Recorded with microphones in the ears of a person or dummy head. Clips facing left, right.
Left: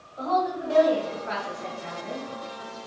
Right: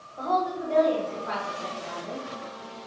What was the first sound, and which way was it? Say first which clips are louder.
A woman speaking: left 1 dB; 10° left (ahead or behind).